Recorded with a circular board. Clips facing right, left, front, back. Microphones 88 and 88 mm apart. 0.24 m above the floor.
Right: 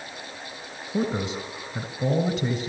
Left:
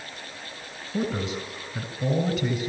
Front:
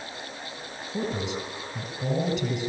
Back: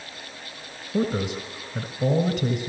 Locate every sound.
0.9 s a man speaking: 150° right, 2 m